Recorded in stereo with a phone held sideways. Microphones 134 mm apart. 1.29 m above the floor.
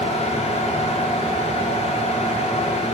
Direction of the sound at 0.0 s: 50° left (ahead or behind).